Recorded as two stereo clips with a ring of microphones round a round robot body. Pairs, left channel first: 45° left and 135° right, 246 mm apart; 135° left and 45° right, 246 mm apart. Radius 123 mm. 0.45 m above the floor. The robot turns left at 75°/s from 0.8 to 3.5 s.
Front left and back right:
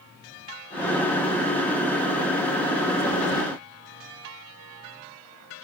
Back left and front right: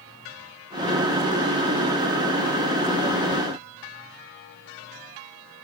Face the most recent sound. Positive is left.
No sound to turn to.